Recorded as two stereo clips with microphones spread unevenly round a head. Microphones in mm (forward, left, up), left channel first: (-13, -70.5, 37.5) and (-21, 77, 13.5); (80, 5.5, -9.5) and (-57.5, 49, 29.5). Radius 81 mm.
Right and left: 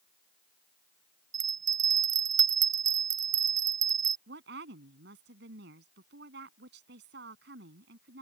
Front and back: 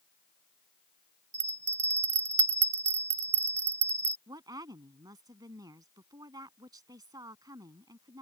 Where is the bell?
130° left.